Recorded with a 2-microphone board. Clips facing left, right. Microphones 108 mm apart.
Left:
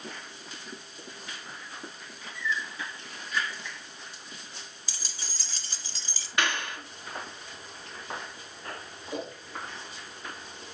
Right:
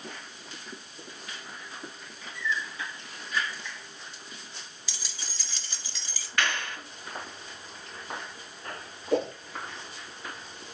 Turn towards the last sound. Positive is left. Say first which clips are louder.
# right 9 dB
turn(degrees=-70)  # may be behind; listen again after turning